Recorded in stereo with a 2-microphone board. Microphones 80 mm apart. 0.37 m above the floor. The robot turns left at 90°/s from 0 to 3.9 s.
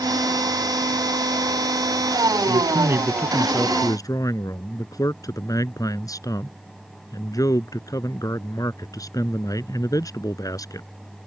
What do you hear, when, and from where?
2.5 s a man speaking: 105° right; by 10.9 s 130° left